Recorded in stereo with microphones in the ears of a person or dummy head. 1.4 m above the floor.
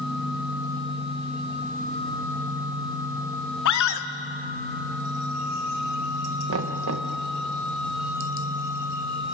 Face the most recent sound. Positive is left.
turn(degrees=-75)  # may be behind; listen again after turning